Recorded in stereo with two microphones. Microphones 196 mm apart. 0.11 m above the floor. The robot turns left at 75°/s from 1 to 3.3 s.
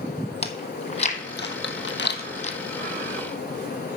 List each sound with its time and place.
0.4 s chewing: 35° left (ahead or behind), 0.9 m; by 2.6 s 25° left (ahead or behind), 0.9 m